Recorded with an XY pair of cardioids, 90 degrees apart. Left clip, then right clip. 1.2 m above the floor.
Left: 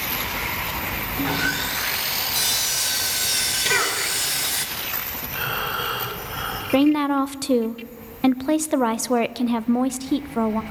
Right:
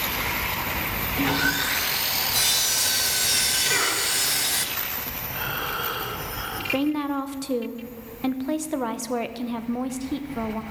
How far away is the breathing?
About 5 m.